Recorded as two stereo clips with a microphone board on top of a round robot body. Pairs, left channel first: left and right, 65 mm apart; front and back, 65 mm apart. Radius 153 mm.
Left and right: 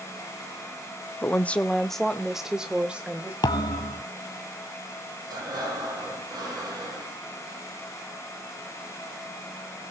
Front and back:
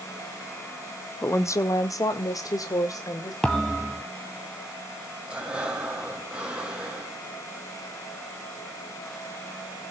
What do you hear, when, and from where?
1.2 s a woman speaking: 35° left, 1.4 m; by 3.3 s 20° right, 2.5 m
3.4 s a thud: 85° left, 0.8 m
5.3 s breathing: 105° right, 7.5 m